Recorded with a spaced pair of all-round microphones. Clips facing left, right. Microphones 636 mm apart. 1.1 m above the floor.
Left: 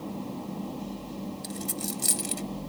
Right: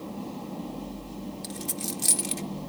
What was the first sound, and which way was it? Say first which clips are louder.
A dropped coin: left 1 dB; 15° right (ahead or behind).